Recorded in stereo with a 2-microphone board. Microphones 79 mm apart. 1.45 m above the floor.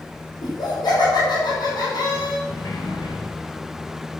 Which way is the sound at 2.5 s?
75° left (ahead or behind).